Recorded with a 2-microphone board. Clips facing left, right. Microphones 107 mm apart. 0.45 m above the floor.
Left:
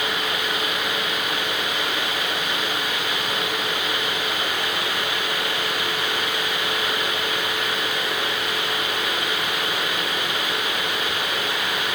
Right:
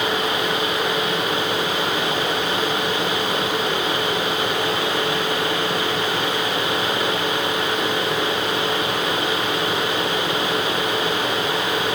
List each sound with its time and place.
Only background noise.